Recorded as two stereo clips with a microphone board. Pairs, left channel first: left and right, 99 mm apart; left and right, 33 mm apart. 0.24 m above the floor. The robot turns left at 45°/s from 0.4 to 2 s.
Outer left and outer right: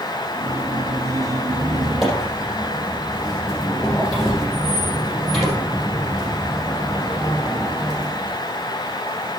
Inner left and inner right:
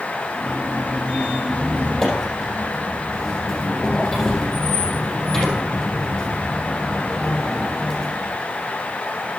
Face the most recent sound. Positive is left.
turn(degrees=0)  # may be behind; listen again after turning